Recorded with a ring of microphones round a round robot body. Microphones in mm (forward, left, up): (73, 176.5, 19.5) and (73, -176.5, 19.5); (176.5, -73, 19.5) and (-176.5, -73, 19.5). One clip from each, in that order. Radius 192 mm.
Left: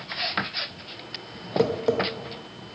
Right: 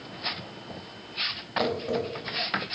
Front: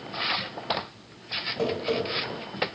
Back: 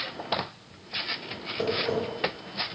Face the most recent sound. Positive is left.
turn(degrees=80)